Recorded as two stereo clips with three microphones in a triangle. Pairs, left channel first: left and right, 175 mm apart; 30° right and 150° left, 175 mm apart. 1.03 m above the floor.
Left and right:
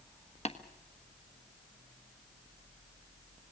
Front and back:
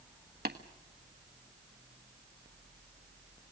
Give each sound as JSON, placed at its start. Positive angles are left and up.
{"t": 0.5, "sound": "tapping", "azimuth_deg": 140, "distance_m": 1.4}